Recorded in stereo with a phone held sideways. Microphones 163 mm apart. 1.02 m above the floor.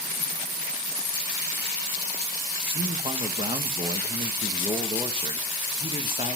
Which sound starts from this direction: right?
A man speaking, at 2.6 s.